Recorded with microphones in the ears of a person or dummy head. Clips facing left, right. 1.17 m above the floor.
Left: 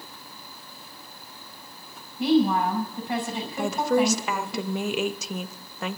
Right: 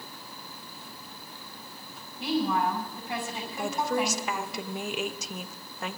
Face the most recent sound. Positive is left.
turn(degrees=60)  # may be behind; listen again after turning